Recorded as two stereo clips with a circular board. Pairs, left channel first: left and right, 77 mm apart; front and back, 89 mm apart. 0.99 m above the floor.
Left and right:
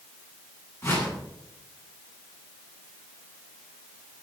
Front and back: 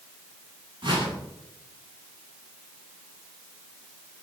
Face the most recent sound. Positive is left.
turn(degrees=145)